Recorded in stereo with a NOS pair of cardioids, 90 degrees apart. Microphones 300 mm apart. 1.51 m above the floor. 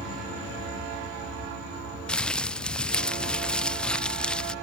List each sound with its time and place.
2.1 s crumpling: 5° left